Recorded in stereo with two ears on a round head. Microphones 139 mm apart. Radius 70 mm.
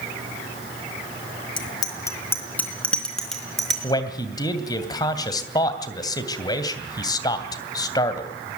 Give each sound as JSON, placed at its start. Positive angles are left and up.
{"t": 1.6, "sound": "a bicycle bell", "side_deg": 30, "distance_m": 2.5}
{"t": 3.8, "sound": "a man speaking", "side_deg": 25, "distance_m": 2.5}